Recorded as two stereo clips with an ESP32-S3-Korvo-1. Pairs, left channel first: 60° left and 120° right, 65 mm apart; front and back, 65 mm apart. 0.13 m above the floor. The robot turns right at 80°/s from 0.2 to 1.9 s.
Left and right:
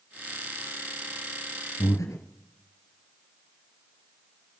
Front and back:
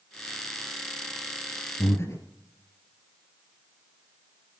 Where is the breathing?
25° left, 2.5 m; by 2.2 s 35° left, 2.5 m.